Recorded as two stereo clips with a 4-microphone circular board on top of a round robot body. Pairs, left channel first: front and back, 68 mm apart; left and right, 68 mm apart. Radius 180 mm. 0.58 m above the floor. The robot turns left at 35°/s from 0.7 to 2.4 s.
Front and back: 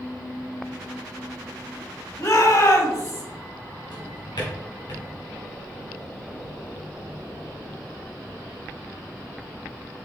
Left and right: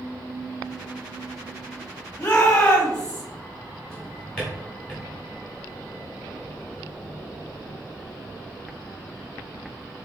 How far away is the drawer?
About 1.4 m.